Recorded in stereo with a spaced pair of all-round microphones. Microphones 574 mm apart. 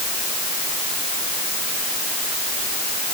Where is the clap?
No clap in this recording.